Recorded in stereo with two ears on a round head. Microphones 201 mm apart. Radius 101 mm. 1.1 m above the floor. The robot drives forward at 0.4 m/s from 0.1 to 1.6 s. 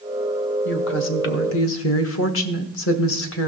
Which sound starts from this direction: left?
A woman speaking, at 0.7 s.